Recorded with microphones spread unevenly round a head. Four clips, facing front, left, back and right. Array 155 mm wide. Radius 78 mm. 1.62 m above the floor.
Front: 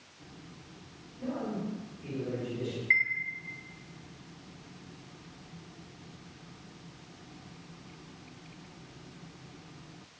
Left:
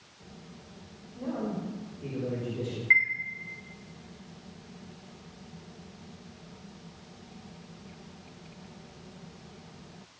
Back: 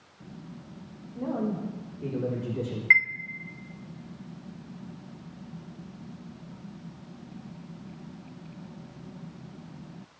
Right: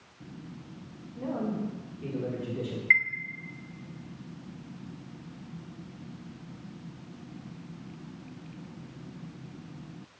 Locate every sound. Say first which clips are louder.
1.1 s a man speaking: right 1 dB, back 5 dB; 170° right, 4.5 m
2.9 s a chime: even, back 7 dB; 175° left, 1.0 m